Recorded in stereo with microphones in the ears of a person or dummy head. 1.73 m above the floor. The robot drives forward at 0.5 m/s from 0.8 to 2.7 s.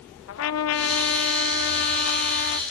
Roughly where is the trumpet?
Left.